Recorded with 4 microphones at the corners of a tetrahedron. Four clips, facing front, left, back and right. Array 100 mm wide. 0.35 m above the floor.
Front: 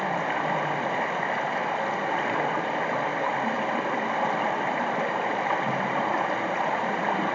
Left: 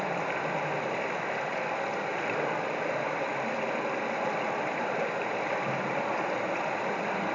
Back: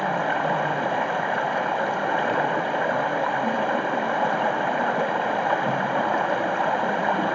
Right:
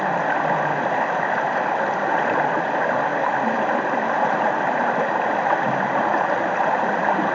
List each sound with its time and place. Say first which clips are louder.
0.0 s running water: right 10 dB, back 3 dB; 100° right, 1.4 m